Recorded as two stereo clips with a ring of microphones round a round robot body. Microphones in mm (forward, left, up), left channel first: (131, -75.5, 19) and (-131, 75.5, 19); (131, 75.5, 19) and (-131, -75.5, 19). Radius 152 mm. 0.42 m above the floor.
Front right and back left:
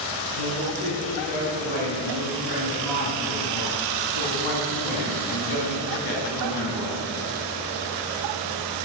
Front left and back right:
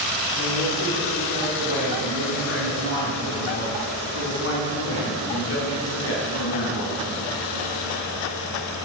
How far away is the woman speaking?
About 7 m.